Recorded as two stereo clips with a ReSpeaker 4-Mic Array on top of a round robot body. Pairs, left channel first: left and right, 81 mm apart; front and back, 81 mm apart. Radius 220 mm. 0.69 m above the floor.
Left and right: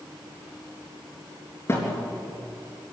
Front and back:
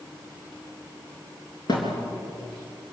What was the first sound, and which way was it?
A thud, 30° left.